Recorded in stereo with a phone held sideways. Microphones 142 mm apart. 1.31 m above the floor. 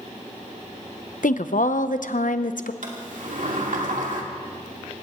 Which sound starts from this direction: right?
A sliding door, at 2.8 s.